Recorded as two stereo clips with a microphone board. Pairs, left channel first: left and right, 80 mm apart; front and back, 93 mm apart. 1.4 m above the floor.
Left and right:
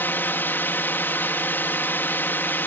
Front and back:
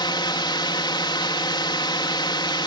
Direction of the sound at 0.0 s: 30° left.